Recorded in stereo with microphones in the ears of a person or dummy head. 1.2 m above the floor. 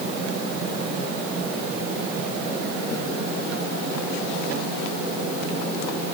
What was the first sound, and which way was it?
Only background noise.